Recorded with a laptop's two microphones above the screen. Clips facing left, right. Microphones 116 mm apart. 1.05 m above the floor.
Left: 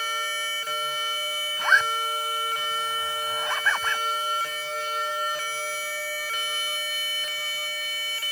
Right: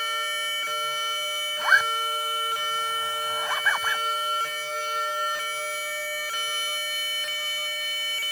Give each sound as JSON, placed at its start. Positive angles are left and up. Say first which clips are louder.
{"t": 1.6, "sound": "a zipper", "louder": "even", "side_deg": -5}